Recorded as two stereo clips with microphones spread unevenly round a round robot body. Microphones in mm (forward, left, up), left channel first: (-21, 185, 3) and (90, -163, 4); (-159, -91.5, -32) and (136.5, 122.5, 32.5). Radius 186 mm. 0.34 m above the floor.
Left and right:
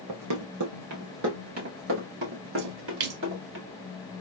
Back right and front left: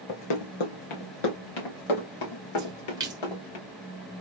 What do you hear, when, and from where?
0.1 s running footsteps: 110° right, 1.0 m; by 3.6 s 130° right, 3 m
2.6 s a splash: 45° right, 0.9 m